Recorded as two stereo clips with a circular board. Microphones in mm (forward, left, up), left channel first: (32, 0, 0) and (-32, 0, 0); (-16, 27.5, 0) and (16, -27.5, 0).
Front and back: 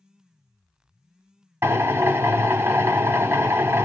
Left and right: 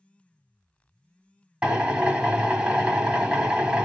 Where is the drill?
130° right, 0.9 m.